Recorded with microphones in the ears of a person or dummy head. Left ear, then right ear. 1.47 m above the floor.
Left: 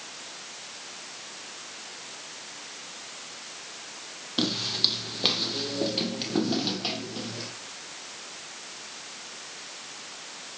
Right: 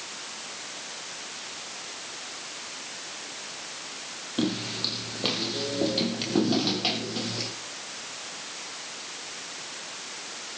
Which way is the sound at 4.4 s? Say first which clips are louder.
Left 4 dB; 40° left (ahead or behind).